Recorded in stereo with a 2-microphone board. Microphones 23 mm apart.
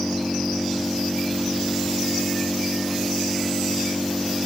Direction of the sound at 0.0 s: 40° right (ahead or behind).